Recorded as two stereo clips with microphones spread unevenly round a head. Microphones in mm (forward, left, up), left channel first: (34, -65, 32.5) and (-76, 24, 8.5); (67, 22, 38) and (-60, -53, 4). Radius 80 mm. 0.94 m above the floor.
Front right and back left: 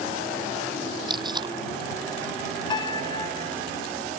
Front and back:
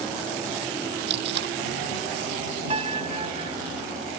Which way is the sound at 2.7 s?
95° right.